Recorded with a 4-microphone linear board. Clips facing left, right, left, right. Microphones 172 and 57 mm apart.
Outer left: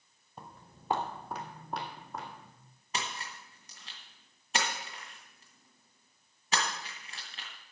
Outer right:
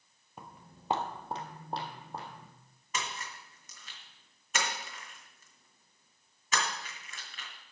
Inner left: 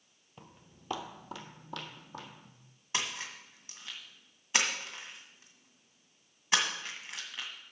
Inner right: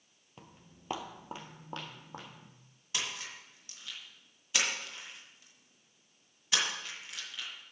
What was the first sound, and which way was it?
Footsteps, 10° right (ahead or behind).